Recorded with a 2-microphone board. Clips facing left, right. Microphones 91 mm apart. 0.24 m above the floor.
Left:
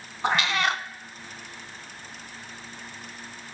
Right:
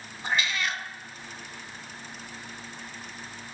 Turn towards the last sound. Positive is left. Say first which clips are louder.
# left 5 dB
turn(degrees=65)  # may be behind; listen again after turning